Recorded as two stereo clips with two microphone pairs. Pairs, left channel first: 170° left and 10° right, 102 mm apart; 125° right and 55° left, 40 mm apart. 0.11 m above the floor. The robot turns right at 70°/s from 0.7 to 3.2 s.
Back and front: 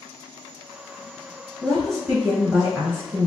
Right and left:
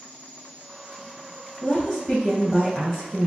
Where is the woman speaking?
130° right, 1.5 m; by 3.3 s 15° right, 1.5 m.